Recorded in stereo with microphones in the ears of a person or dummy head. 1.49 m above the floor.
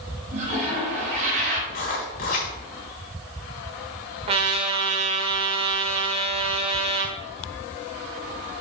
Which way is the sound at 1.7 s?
35° left (ahead or behind).